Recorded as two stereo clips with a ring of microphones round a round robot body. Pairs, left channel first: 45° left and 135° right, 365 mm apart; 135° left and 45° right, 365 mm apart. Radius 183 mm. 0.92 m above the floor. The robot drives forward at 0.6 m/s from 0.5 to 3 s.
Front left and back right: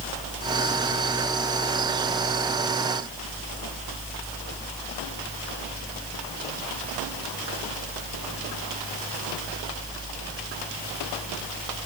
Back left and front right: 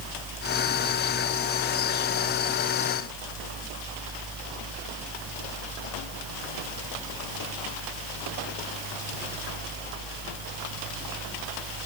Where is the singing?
No singing in this recording.